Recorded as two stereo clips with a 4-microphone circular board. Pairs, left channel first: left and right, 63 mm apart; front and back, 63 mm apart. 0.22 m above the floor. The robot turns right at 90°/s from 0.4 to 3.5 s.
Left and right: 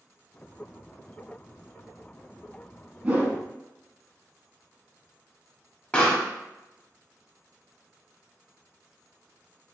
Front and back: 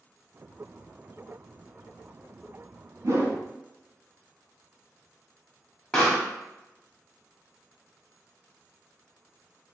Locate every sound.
3.0 s a whoosh: 160° right, 0.7 m; by 3.4 s 125° right, 0.7 m
5.9 s a pop: 60° left, 0.9 m